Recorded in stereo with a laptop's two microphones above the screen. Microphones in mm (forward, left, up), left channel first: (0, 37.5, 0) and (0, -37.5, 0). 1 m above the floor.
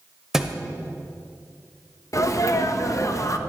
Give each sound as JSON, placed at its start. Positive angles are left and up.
{"t": 0.3, "sound": "a thud", "side_deg": -5, "distance_m": 0.9}
{"t": 2.1, "sound": "a sneeze", "side_deg": 50, "distance_m": 0.9}